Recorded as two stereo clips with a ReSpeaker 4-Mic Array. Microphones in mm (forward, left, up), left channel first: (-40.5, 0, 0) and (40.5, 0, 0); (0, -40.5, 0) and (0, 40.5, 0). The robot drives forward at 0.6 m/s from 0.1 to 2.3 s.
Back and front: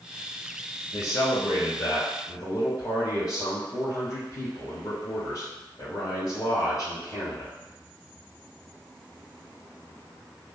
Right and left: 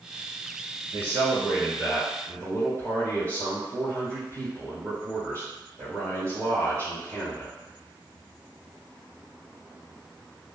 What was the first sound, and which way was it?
A man speaking, 130° left.